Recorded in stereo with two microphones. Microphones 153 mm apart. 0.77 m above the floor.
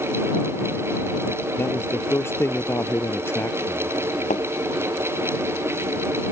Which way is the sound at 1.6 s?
15° left (ahead or behind).